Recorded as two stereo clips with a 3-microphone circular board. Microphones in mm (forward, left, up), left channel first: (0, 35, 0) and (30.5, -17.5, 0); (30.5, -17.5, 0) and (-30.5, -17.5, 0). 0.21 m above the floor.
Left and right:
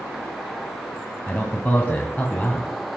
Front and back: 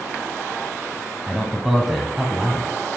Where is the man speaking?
100° left, 1.5 m.